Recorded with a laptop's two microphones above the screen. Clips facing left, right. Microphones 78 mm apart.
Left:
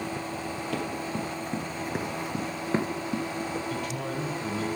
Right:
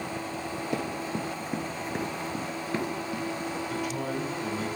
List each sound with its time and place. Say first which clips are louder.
0.7 s running footsteps: even; 20° right (ahead or behind), 1.5 m; by 3.6 s 30° left (ahead or behind), 1.6 m
3.7 s a man speaking: right 1 dB; 5° right (ahead or behind), 3.5 m